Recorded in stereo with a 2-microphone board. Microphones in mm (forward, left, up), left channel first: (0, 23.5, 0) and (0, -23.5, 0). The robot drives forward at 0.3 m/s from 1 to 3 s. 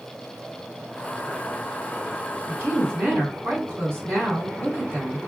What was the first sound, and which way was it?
A woman speaking, 50° right (ahead or behind).